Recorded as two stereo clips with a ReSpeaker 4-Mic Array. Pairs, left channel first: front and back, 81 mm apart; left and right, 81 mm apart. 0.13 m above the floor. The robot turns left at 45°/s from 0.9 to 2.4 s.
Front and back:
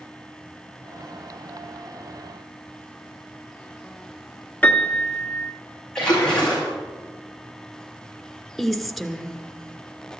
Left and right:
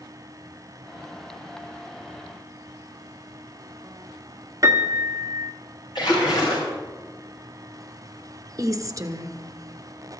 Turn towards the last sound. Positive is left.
turn(degrees=-90)